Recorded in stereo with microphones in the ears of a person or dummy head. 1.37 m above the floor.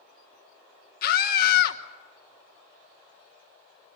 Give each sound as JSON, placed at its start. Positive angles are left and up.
{"t": 1.0, "sound": "a scream", "side_deg": 55, "distance_m": 2.5}